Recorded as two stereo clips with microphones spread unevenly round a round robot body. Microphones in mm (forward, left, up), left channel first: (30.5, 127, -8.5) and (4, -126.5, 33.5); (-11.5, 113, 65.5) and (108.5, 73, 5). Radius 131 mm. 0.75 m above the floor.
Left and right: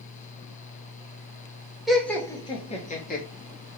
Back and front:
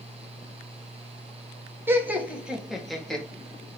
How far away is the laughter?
About 1.2 m.